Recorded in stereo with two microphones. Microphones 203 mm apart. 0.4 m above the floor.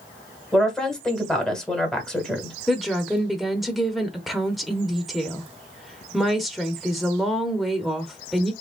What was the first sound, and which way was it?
A woman speaking, 5° left (ahead or behind).